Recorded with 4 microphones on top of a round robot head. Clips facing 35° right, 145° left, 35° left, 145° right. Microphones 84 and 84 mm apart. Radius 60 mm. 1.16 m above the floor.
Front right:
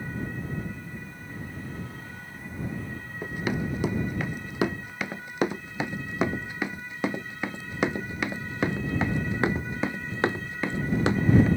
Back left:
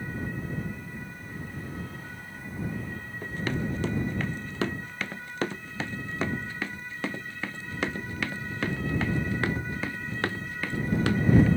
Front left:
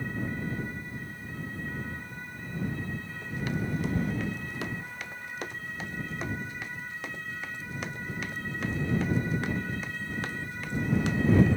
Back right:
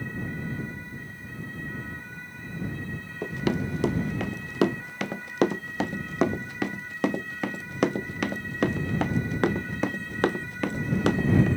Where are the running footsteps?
115° right; by 11.5 s 105° right.